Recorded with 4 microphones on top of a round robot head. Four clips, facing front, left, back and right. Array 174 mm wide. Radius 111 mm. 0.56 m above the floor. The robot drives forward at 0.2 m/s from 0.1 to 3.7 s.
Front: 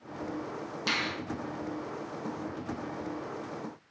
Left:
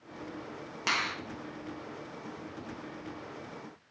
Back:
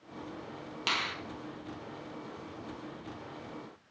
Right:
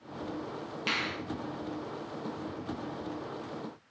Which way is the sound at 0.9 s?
120° left.